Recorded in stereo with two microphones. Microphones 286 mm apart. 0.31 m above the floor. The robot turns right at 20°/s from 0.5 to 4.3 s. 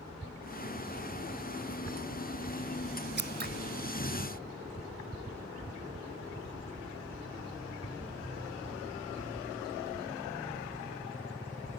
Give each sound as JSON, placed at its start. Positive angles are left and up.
{"t": 3.2, "sound": "scissors", "side_deg": -40}